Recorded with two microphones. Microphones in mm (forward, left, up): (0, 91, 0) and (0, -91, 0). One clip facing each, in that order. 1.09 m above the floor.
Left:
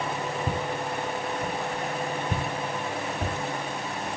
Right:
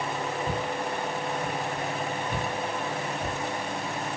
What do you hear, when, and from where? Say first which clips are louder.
0.5 s footsteps: even; 25° left (ahead or behind), 6 m; by 4.1 s 60° left (ahead or behind), 5 m